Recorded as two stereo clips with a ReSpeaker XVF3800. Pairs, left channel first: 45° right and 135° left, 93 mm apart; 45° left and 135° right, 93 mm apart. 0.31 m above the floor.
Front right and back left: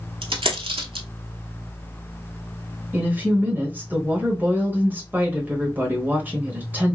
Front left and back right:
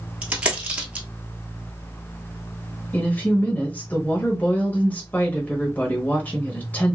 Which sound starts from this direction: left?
A woman speaking, at 2.9 s.